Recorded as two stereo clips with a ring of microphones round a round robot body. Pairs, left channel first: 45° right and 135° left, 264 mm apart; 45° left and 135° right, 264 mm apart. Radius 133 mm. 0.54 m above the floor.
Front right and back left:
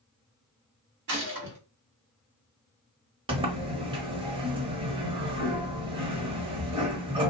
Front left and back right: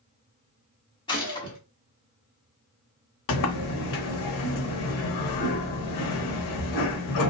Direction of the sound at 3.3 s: 65° left.